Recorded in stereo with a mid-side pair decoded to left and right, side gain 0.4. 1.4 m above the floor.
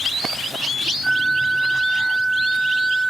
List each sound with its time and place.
1.0 s a flute: 45° right, 0.6 m